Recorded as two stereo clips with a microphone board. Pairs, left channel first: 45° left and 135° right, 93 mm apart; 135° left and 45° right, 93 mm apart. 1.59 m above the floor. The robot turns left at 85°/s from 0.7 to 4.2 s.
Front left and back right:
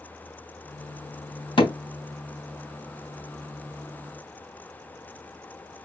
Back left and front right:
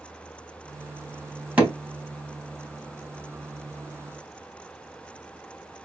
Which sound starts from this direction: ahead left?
Hammering, at 1.6 s.